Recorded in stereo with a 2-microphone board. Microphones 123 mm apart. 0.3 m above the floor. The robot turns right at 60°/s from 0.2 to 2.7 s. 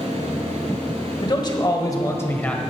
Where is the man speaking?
85° left, 1.1 m; by 2.6 s 170° left, 1.1 m.